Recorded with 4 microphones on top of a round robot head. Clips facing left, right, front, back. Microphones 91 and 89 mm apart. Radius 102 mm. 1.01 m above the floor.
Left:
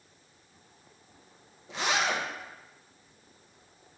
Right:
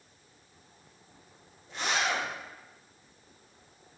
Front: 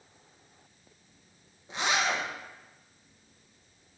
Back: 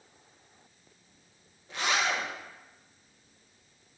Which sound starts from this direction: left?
A zipper, at 1.7 s.